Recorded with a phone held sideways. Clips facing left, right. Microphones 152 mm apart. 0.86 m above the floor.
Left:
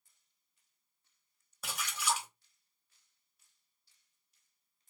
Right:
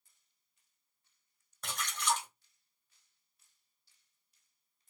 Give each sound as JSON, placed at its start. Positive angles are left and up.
{"t": 1.6, "sound": "a splash", "side_deg": 10, "distance_m": 0.9}